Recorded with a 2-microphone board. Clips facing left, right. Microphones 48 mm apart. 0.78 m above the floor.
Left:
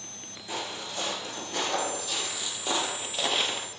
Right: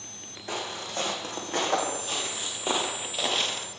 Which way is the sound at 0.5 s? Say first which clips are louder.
Right 2 dB; 50° right (ahead or behind).